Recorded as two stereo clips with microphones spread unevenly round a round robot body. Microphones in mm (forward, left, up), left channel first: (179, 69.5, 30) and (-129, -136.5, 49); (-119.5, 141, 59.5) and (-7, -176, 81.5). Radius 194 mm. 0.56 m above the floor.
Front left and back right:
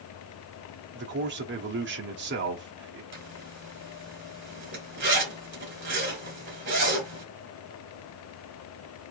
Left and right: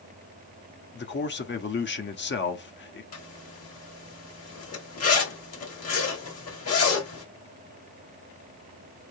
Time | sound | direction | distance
0.9 | a man speaking | 155° left | 0.9 m
3.1 | a zipper | 150° left | 1.8 m